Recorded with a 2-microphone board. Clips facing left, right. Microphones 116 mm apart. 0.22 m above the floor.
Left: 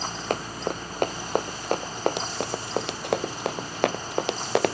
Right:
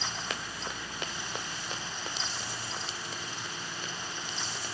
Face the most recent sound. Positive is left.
turn(degrees=90)